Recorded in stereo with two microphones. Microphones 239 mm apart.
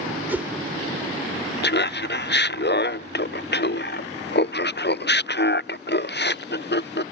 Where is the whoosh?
10° right (ahead or behind).